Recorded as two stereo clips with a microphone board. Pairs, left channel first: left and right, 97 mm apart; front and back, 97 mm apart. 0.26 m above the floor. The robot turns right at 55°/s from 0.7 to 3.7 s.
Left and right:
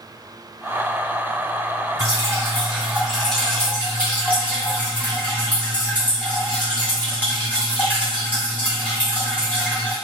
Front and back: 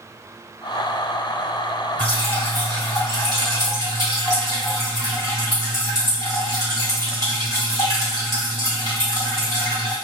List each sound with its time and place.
2.0 s dripping: 65° right, 1.8 m; by 9.9 s 25° left, 1.8 m